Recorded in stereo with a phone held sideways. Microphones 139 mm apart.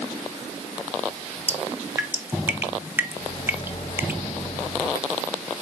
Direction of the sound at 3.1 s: 50° left (ahead or behind).